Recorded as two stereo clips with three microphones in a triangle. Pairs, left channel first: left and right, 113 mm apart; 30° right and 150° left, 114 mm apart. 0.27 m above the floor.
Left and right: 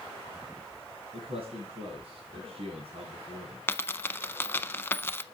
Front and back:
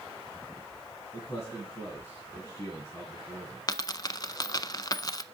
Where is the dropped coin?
20° left, 0.6 m.